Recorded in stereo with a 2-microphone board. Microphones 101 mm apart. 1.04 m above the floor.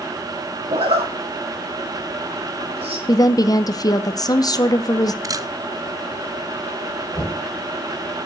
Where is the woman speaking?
35° left (ahead or behind), 0.8 m.